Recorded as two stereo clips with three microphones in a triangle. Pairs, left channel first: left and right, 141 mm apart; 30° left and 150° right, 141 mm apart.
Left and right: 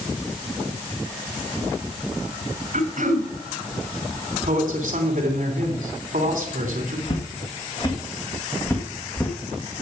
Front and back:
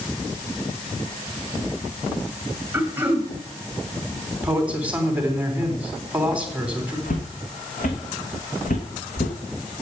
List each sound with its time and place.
2.7 s throat clearing: 70° right, 2 m
4.4 s a man speaking: 70° right, 3 m
7.1 s footsteps: 45° left, 2.5 m; by 9.3 s 10° left, 2.5 m